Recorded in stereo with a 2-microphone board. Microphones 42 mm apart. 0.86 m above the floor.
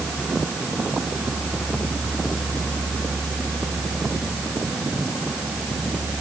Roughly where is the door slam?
I don't hear a door slam.